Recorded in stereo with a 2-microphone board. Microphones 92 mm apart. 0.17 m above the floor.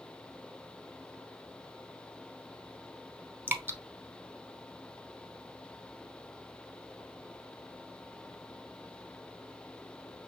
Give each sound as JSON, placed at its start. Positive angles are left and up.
{"t": 3.5, "sound": "dripping", "side_deg": -25, "distance_m": 0.7}